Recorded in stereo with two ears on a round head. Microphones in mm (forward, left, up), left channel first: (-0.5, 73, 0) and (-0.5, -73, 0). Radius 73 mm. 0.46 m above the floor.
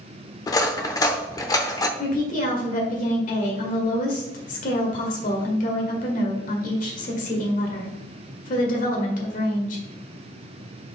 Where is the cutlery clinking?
20° left (ahead or behind), 0.7 m.